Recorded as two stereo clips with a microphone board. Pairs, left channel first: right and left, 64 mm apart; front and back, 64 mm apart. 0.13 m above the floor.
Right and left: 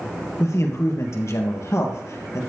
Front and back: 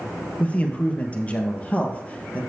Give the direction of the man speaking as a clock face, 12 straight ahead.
2 o'clock.